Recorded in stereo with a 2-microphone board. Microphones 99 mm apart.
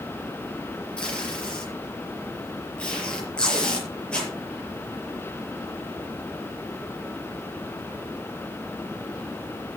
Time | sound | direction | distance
1.0 | tape being pulled | 10° left (ahead or behind) | 6 m